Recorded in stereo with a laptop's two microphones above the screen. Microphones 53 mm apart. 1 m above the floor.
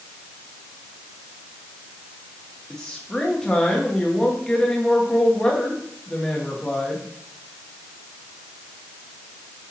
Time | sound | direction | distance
2.7 | a woman speaking | 15° left (ahead or behind) | 1.3 m